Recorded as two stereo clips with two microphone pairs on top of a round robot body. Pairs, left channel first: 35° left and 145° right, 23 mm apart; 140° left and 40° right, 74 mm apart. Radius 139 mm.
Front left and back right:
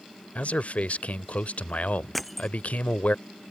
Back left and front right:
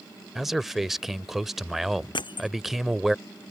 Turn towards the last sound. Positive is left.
turn(degrees=125)